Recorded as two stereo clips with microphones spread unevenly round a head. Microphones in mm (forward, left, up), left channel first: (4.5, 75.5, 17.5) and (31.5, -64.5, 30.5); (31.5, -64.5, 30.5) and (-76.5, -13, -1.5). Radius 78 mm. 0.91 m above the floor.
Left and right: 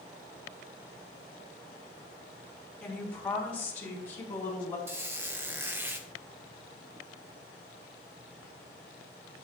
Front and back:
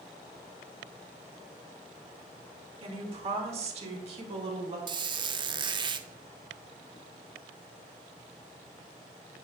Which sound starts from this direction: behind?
A woman speaking, at 2.8 s.